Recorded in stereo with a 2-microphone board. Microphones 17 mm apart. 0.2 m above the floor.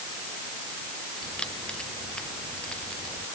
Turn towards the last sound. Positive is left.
turn(degrees=85)